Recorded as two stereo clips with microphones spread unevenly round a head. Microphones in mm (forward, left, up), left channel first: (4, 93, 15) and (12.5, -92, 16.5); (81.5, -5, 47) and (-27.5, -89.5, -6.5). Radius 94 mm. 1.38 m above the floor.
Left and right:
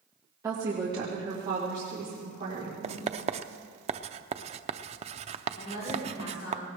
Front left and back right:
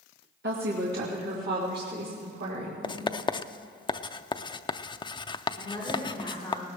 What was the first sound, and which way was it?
A woman speaking, 165° right.